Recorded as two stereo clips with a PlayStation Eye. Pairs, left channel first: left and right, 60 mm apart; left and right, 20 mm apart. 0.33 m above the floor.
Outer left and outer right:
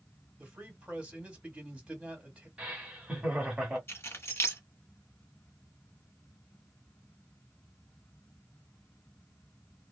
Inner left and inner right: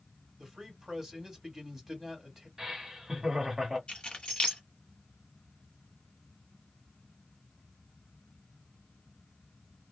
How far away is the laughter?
About 1.2 m.